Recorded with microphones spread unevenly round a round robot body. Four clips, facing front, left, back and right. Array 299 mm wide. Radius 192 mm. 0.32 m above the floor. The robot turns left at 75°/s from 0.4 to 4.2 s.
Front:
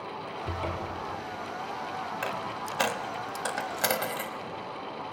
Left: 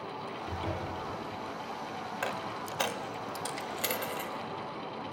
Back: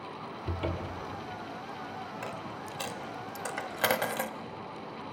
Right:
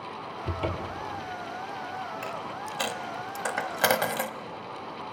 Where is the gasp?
No gasp in this recording.